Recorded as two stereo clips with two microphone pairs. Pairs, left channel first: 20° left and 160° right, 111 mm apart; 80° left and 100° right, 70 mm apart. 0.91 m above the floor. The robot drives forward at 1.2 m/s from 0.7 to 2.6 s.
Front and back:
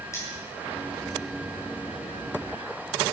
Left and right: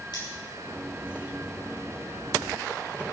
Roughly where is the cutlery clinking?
Left.